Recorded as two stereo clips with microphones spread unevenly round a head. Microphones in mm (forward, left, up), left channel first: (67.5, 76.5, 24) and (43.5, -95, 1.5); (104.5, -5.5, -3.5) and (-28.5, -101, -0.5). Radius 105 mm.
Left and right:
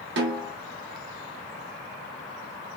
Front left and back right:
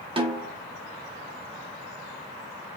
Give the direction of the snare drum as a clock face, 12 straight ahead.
3 o'clock.